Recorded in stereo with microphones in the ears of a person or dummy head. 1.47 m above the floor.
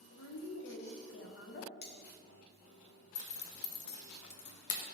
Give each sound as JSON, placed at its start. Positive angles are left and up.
{"t": 0.1, "sound": "a woman speaking", "side_deg": 85, "distance_m": 1.0}
{"t": 1.8, "sound": "cutlery clinking", "side_deg": 55, "distance_m": 1.0}
{"t": 3.1, "sound": "a zipper", "side_deg": 75, "distance_m": 0.8}